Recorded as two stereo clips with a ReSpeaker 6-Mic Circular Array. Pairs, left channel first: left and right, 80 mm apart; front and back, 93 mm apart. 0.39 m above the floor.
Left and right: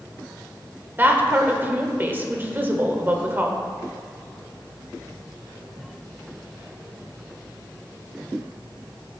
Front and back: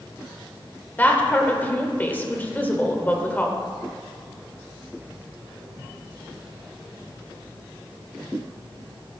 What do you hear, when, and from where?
1.0 s a woman speaking: 50° right, 1.1 m